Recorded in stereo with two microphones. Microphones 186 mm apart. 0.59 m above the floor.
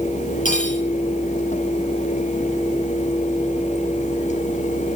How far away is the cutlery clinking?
About 10 m.